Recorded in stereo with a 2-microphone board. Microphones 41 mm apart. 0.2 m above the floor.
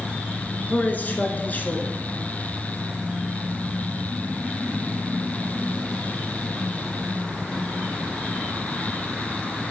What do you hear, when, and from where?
0.7 s a man speaking: 40° left (ahead or behind), 2.5 m